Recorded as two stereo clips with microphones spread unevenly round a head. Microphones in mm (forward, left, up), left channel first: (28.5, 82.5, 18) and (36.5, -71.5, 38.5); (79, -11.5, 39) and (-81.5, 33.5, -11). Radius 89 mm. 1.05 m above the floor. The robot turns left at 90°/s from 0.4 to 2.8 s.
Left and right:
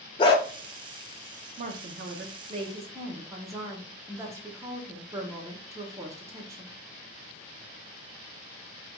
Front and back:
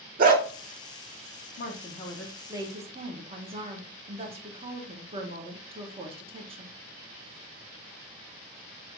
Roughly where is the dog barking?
Behind left.